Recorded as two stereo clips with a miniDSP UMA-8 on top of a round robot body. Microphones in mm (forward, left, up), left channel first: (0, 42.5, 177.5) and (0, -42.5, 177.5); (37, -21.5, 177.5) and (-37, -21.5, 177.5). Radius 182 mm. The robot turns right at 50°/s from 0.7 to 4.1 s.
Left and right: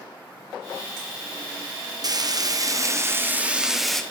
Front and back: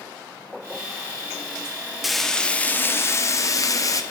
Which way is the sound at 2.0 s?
95° right.